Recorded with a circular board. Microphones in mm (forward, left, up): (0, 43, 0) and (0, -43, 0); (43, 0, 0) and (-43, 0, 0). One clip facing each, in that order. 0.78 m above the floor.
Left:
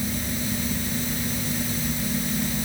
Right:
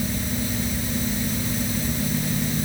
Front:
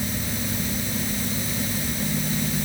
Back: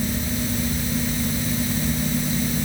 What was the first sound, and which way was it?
Only background noise.